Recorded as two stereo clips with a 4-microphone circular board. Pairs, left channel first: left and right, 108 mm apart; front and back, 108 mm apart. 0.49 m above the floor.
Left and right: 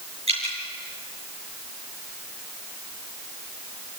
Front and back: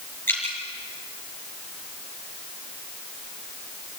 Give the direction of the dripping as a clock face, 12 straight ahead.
2 o'clock.